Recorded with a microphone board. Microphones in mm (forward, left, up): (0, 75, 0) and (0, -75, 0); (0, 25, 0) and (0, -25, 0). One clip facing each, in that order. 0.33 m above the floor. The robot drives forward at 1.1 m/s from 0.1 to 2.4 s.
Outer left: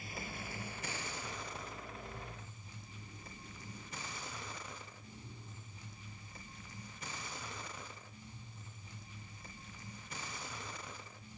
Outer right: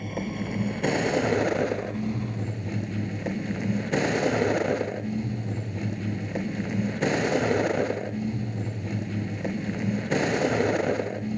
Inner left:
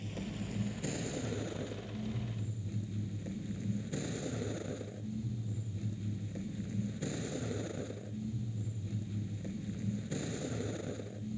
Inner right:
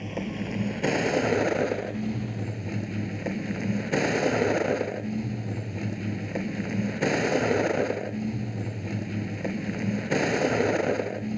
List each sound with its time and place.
0.0 s a vehicle: 55° right (ahead or behind); by 11.4 s 75° right (ahead or behind)